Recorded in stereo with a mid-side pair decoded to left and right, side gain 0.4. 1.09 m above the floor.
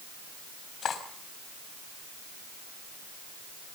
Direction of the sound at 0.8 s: 55° left.